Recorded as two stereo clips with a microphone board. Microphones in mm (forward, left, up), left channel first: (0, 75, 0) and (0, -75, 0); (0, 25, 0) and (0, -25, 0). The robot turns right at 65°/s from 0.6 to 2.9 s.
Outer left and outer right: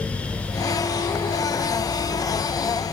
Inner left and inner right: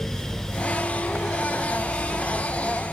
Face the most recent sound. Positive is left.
No sound to turn to.